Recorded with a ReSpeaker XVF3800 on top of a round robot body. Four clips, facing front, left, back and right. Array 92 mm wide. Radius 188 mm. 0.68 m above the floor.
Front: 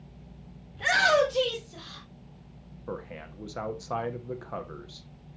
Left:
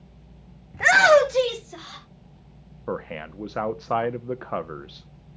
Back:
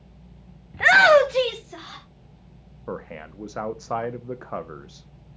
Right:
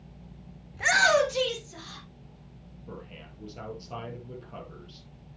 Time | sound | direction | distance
0.7 | a shout | 150° left | 1.1 m
2.9 | a man speaking | 110° left | 1.0 m